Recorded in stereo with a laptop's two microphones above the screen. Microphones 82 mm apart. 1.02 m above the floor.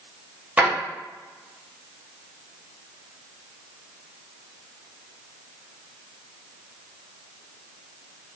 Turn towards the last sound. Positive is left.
turn(degrees=-15)  # may be behind; listen again after turning